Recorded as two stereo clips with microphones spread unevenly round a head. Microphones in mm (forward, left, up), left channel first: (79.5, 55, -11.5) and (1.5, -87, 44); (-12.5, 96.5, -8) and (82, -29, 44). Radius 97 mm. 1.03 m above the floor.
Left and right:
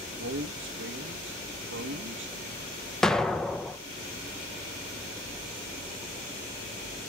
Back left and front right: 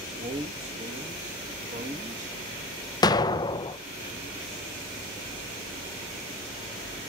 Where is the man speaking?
110° right, 1.4 m.